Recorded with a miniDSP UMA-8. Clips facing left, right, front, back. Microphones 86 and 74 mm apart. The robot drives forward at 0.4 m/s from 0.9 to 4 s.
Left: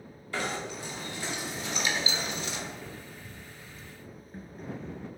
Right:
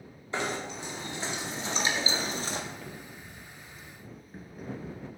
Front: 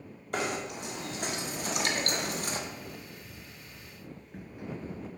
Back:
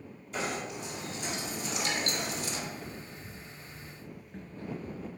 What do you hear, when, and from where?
0.3 s knocking: 25° right, 1.6 m; by 2.6 s 40° right, 1.0 m
2.7 s footsteps: 155° left, 1.7 m; by 5.1 s 20° right, 1.3 m